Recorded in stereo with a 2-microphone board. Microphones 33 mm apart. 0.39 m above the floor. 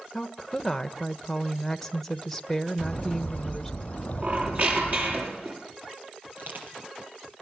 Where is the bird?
45° left (ahead or behind), 7 m.